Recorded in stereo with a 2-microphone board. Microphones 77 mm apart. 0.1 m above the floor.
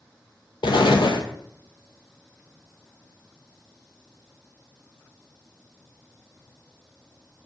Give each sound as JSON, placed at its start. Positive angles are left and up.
{"t": 0.6, "sound": "an explosion", "side_deg": 75, "distance_m": 0.6}